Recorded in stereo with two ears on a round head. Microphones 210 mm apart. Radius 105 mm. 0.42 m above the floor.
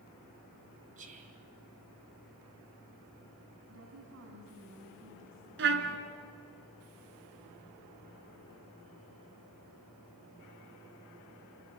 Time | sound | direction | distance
1.0 | whispering | 35° right (ahead or behind) | 3 m
3.7 | a woman speaking | 60° right (ahead or behind) | 4 m
5.6 | a trumpet | 55° right (ahead or behind) | 1.9 m